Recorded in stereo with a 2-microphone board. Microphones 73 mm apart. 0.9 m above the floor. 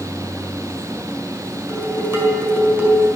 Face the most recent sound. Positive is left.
turn(degrees=-35)  # may be behind; listen again after turning